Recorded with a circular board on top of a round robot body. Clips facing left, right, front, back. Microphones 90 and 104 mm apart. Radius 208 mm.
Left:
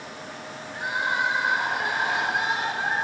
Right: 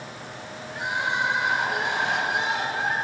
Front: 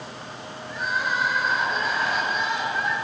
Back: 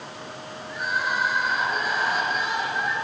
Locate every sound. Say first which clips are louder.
0.7 s crying: even, even; 100° right, 8.5 m